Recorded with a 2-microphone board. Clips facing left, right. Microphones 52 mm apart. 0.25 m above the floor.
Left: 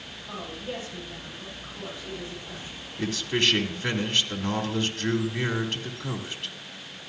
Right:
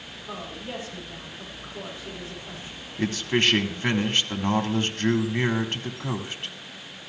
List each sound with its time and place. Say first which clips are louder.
0.3 s a woman speaking: even; 30° right (ahead or behind), 7.5 m
3.0 s a man speaking: right 3 dB; 35° right (ahead or behind), 1.4 m